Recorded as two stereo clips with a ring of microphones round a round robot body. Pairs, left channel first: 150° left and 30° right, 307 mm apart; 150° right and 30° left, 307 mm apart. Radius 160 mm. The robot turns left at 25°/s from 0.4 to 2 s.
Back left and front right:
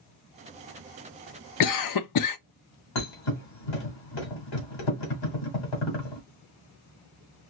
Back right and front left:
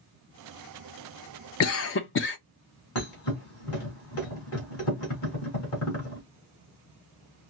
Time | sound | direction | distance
1.6 | a cough | 170° left | 0.7 m
3.0 | a thud | 165° left | 2.5 m